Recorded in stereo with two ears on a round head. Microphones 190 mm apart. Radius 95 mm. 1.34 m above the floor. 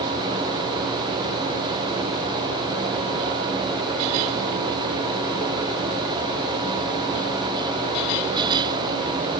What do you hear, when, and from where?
Only background noise.